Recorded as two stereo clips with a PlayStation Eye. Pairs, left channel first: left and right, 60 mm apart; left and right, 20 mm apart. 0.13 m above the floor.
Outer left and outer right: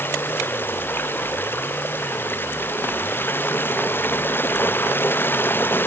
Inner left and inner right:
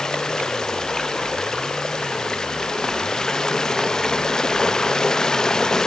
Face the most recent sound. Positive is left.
turn(degrees=35)  # may be behind; listen again after turning